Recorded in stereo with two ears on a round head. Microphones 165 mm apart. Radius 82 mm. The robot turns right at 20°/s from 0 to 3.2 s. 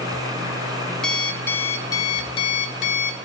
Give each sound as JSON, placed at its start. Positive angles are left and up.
{"t": 1.0, "sound": "an alarm clock", "azimuth_deg": 5, "distance_m": 0.7}